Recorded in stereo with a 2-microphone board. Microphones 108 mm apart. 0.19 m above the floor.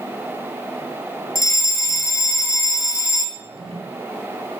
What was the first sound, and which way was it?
A fire alarm, 30° left (ahead or behind).